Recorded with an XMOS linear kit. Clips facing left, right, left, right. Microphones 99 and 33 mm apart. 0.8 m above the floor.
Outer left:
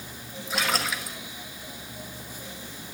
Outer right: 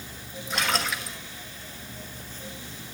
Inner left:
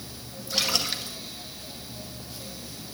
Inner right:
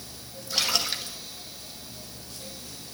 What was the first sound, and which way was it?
A splash, centre (ahead or behind).